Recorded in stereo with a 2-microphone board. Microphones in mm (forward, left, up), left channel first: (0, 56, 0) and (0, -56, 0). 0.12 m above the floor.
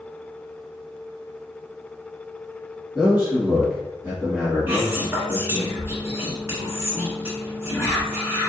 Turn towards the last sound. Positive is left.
turn(degrees=-20)  # may be behind; listen again after turning